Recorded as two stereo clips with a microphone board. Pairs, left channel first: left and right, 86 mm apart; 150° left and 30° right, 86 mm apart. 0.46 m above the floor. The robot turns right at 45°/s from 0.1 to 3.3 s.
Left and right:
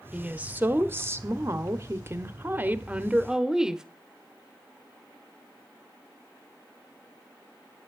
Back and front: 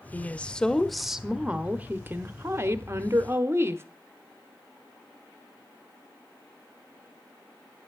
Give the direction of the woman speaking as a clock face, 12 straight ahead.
5 o'clock.